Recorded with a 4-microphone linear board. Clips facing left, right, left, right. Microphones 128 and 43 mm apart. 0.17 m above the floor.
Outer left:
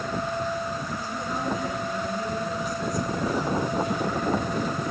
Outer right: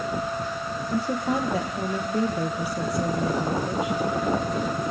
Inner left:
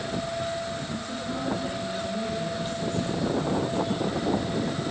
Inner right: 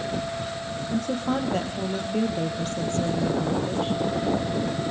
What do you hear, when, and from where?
0.9 s a woman speaking: 75° right (ahead or behind), 4.5 m